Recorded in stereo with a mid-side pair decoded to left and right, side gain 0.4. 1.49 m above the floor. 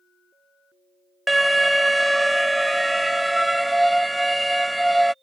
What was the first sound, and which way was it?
An alarm, 10° right.